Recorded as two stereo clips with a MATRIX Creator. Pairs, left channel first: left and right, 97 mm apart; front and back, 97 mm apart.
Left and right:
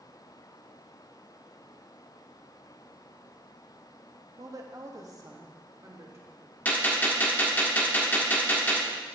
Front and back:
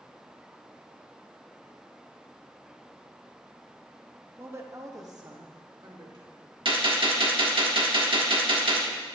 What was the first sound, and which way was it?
A woman speaking, 120° right.